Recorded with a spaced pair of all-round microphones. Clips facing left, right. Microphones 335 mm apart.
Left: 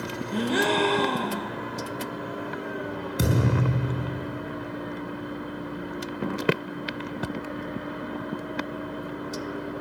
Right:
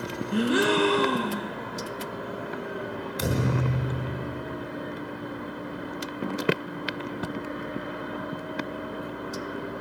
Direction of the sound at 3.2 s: 60° left (ahead or behind).